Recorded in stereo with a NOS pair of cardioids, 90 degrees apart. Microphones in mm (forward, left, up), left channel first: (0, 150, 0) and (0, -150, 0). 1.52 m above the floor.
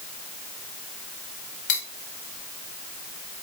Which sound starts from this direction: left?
Cutlery clinking, at 1.7 s.